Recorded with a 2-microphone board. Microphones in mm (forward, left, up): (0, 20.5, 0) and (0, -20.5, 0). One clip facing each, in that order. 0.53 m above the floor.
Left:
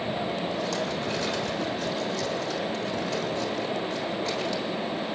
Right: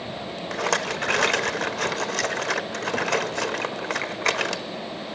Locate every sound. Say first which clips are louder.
0.5 s a rattle: right 3 dB; 70° right (ahead or behind), 1.1 m